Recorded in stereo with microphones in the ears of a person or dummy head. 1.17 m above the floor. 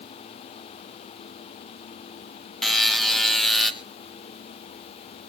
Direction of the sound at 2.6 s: Centre (ahead or behind).